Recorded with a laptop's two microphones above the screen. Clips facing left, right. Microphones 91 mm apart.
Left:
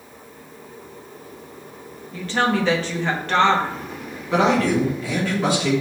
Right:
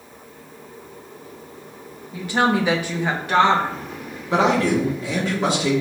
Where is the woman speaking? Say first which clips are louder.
Right 1 dB; 15° right (ahead or behind), 0.7 m.